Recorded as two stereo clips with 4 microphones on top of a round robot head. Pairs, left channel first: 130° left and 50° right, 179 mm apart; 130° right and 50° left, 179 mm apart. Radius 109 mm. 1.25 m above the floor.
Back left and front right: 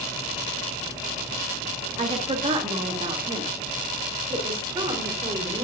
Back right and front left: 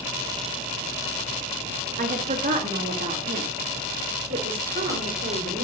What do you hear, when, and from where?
2.0 s a woman speaking: 5° left, 2.5 m; by 5.6 s 15° left, 5 m